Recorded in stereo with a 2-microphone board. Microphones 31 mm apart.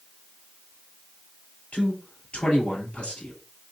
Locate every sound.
1.7 s a man speaking: 45° left (ahead or behind), 2.5 m